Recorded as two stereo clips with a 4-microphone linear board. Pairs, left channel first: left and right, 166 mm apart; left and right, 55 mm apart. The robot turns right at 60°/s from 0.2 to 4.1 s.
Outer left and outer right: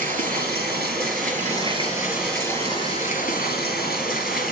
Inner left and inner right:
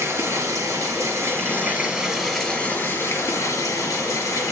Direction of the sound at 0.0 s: 120° right.